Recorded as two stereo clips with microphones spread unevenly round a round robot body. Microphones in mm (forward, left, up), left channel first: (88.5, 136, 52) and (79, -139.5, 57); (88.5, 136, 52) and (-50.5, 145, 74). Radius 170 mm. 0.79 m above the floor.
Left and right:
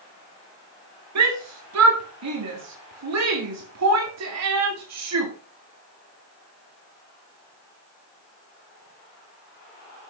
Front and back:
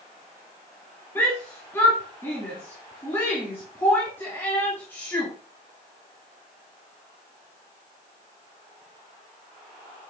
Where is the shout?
75° right, 2.5 m.